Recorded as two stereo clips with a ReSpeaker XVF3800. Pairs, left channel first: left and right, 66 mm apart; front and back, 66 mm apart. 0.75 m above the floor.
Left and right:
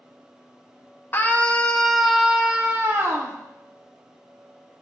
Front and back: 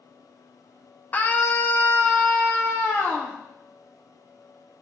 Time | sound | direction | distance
1.1 | a scream | 50° left | 1.0 m